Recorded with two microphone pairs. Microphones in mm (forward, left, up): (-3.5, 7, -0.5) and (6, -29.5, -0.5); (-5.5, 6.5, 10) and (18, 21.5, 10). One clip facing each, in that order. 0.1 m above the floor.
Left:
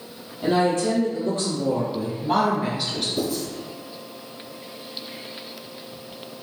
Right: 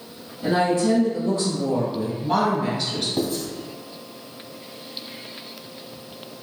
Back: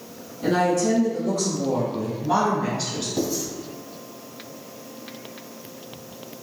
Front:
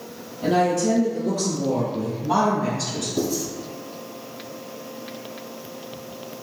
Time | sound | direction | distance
0.4 | a woman speaking | 100° left | 1.9 m
3.2 | writing | 70° right | 1.8 m